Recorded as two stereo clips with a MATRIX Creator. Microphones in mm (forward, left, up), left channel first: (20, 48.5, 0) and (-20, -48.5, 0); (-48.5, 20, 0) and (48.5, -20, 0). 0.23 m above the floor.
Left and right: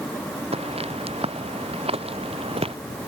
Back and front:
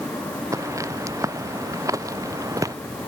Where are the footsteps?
85° right; by 2.8 s 80° right.